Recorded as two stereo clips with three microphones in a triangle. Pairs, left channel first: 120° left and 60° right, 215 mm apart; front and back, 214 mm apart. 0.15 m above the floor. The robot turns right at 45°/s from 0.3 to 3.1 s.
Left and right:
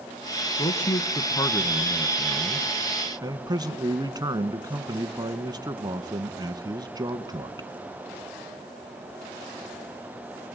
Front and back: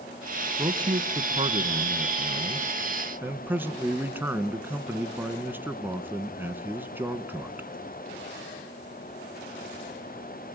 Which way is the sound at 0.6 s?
135° left.